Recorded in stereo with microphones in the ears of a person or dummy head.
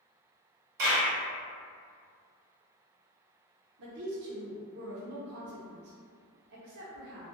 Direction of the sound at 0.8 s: 60° right (ahead or behind).